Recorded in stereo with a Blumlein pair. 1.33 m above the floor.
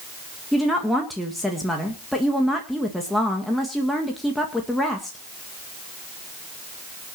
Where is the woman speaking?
5° left, 1.9 m.